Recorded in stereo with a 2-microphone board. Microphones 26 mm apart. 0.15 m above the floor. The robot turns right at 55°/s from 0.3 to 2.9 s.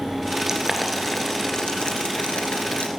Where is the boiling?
20° right (ahead or behind), 2.5 m; by 2.9 s 55° left (ahead or behind), 2.5 m.